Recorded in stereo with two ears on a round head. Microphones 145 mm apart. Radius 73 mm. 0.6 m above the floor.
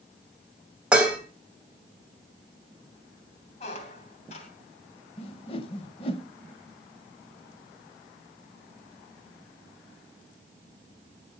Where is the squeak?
45° left (ahead or behind), 3 m.